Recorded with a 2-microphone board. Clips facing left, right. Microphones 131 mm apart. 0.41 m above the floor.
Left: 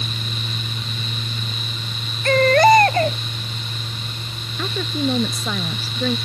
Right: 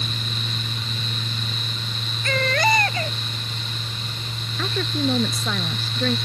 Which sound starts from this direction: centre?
A woman speaking, at 4.6 s.